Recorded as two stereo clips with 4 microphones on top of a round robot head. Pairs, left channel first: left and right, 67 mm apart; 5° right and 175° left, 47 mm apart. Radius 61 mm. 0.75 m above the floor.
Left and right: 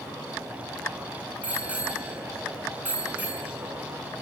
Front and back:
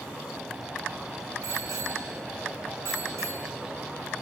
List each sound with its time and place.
1.4 s a bicycle bell: 155° right, 6 m